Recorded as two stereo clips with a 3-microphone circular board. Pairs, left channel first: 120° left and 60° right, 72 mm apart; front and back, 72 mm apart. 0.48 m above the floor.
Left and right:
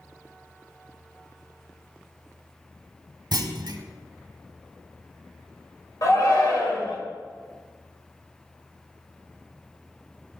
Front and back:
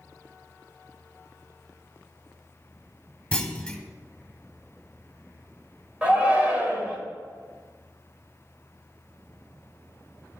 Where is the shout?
110° left, 2 m.